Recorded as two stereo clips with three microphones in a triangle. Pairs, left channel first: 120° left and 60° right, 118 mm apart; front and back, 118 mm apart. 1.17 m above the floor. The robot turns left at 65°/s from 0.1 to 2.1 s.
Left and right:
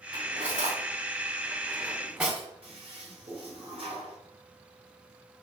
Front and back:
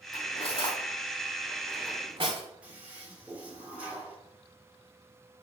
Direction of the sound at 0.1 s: 10° right.